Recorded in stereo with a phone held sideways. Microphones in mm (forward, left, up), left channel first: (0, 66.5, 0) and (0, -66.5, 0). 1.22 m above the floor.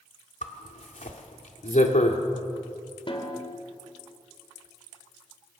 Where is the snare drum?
40° left (ahead or behind), 3 m.